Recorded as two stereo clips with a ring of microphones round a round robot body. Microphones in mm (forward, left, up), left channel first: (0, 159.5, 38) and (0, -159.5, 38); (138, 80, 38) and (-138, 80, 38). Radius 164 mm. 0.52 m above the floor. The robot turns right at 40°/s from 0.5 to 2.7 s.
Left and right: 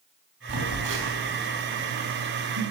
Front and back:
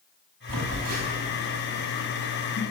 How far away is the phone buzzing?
About 4.5 m.